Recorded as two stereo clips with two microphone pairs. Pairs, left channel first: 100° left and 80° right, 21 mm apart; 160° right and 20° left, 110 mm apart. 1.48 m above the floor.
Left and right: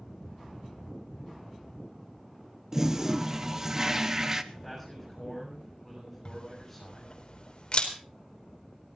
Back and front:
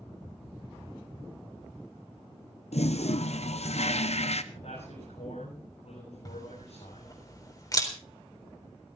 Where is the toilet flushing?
145° right, 0.8 m.